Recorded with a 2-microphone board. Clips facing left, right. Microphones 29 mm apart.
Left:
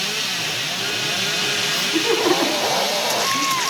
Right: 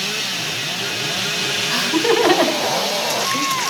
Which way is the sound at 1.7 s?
50° right (ahead or behind).